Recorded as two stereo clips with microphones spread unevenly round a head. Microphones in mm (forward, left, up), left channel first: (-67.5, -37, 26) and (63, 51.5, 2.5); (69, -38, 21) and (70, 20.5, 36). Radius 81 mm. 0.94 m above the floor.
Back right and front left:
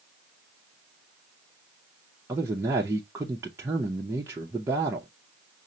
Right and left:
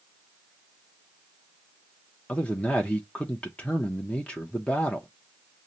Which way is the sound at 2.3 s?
30° right.